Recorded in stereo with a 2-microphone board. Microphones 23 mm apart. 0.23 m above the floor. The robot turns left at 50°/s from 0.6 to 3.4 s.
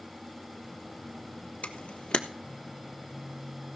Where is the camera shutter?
80° left, 1.3 m; by 2.2 s 50° left (ahead or behind), 1.3 m.